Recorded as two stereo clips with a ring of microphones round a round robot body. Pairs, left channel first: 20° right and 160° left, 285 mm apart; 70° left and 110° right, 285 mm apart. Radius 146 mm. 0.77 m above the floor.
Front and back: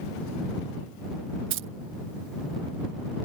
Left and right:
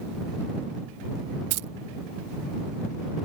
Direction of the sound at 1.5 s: 150° right.